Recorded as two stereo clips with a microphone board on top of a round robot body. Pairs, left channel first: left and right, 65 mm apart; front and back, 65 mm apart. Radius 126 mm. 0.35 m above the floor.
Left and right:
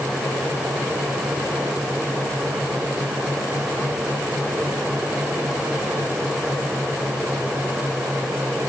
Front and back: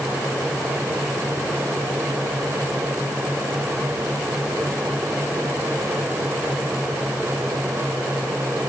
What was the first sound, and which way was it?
Only background noise.